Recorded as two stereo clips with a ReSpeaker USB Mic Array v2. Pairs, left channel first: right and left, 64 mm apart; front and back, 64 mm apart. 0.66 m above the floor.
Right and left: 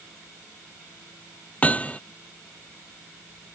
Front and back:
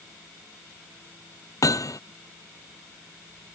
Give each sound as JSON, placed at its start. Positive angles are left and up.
{"t": 1.6, "sound": "hammering", "azimuth_deg": -25}